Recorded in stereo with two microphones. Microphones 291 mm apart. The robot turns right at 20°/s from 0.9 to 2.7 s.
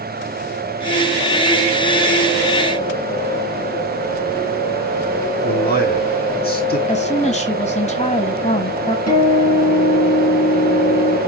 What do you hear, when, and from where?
5.4 s a man speaking: 35° left (ahead or behind), 3 m
6.9 s a woman speaking: 25° left (ahead or behind), 1.2 m
9.1 s a guitar: 60° left (ahead or behind), 3 m